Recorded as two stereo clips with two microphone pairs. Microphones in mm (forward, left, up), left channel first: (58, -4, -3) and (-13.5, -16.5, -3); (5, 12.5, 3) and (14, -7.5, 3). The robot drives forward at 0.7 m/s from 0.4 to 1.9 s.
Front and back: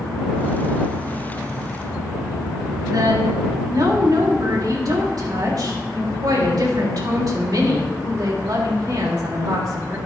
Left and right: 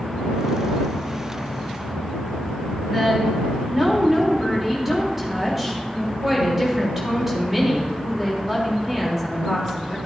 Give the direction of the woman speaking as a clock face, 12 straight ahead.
5 o'clock.